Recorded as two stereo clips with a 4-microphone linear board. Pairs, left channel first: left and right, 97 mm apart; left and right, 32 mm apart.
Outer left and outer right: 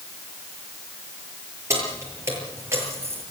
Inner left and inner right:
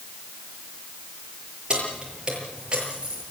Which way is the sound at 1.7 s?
30° right (ahead or behind).